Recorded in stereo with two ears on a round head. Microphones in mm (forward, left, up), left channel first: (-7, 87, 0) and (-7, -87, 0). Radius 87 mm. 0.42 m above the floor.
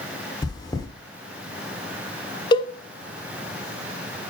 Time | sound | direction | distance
0.4 | chewing | 20° left (ahead or behind) | 1.1 m
2.5 | a cowbell | 25° left (ahead or behind) | 0.7 m